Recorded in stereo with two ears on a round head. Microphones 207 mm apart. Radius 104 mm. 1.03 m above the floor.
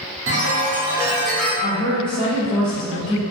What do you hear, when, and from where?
0.3 s a chime: 55° right (ahead or behind), 0.8 m
1.6 s a woman speaking: 20° left (ahead or behind), 0.6 m